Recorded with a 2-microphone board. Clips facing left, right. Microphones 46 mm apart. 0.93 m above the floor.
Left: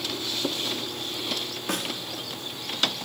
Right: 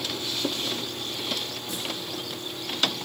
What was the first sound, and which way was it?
A snare drum, 65° left (ahead or behind).